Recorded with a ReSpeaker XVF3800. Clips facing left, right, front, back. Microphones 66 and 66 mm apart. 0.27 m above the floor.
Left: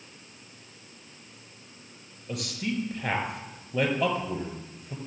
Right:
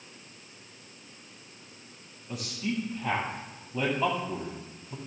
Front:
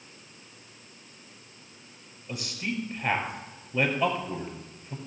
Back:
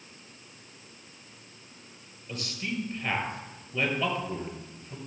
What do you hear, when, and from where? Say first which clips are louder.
2.3 s a man speaking: left 1 dB, front 1 dB; 75° left, 5.5 m